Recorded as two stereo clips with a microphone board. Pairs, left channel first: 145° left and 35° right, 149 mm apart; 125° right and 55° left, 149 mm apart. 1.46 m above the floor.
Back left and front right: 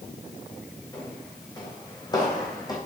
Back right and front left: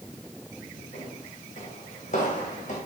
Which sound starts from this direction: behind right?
Footsteps, at 0.9 s.